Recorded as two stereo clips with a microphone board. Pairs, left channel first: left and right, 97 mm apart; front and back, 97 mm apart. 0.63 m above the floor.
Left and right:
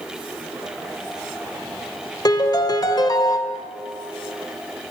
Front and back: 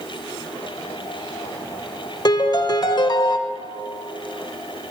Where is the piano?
45° left, 0.6 m.